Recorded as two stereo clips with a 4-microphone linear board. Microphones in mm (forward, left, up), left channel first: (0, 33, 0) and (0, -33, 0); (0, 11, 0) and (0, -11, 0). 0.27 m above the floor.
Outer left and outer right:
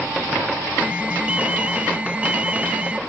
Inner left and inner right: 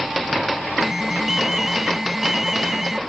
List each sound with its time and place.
0.8 s an alarm: 20° right (ahead or behind)